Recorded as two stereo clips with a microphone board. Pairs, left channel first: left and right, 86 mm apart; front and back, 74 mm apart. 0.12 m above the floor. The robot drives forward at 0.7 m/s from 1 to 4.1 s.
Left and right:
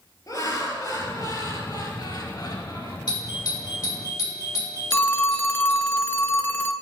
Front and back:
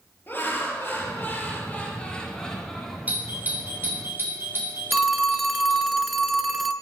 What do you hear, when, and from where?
0.3 s laughter: 55° left, 3 m; by 3.0 s 90° left, 2.5 m
3.1 s a doorbell: 115° left, 4 m; by 5.9 s 125° left, 4 m
4.9 s a phone ringing: 90° left, 0.7 m